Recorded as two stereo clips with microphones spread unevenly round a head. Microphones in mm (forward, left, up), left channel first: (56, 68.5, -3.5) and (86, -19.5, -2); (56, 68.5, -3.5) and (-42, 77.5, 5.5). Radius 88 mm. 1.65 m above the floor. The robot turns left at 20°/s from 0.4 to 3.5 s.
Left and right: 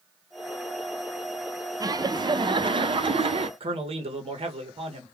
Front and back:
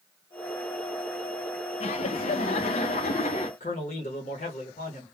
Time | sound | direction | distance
1.8 | laughter | 20° right | 0.5 m
3.6 | a man speaking | 55° right | 0.7 m